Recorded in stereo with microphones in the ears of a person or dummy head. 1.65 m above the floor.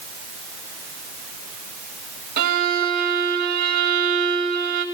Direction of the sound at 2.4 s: 40° right (ahead or behind).